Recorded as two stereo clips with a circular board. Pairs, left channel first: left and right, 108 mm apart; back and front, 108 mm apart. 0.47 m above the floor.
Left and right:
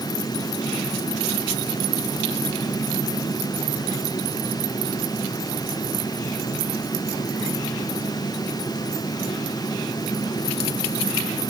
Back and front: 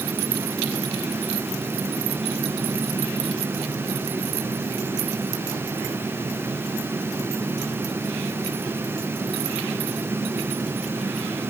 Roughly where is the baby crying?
No baby crying in this recording.